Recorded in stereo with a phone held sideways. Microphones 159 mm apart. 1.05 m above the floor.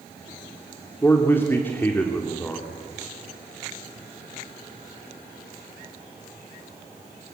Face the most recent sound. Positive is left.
turn(degrees=15)  # may be behind; listen again after turning